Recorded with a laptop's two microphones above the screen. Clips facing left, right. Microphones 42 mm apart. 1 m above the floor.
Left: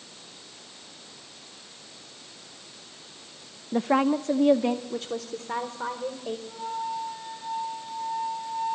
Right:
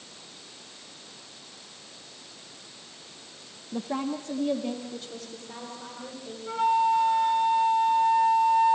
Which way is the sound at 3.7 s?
60° left (ahead or behind).